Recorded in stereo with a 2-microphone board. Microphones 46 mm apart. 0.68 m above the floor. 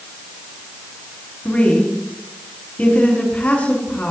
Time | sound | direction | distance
1.4 | a woman speaking | 30° left (ahead or behind) | 6.5 m